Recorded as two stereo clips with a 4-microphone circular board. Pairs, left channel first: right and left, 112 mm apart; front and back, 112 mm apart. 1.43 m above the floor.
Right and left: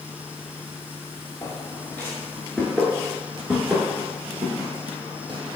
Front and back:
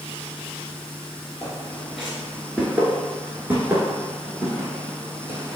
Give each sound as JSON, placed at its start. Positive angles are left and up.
{"t": 1.4, "sound": "footsteps", "azimuth_deg": -85, "distance_m": 1.5}